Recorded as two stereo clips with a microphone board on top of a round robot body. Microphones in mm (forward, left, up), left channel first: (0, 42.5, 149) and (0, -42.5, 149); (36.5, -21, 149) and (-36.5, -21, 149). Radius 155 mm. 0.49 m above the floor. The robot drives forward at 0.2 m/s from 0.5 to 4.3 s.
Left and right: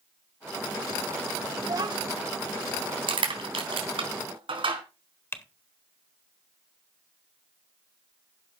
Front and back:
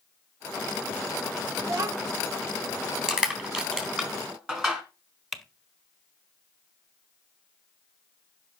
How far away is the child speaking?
About 1.0 m.